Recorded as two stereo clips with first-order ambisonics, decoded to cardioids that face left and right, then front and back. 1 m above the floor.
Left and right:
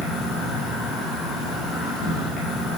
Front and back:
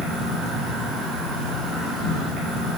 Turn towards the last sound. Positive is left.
turn(degrees=110)